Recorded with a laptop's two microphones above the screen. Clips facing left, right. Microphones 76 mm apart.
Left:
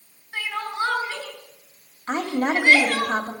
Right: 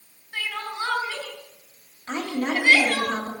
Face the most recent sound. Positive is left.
turn(degrees=40)  # may be behind; listen again after turning